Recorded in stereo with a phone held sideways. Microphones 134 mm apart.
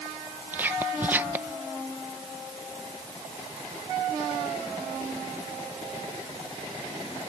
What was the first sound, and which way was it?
Whispering, 15° right (ahead or behind).